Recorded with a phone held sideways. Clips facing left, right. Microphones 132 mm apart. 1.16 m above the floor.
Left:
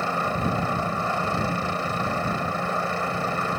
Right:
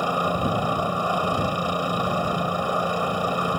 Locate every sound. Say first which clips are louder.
0.0 s a helicopter: right 2 dB; 15° right (ahead or behind)